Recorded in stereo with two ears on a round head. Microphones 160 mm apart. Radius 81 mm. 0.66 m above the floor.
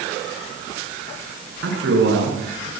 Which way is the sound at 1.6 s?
80° right.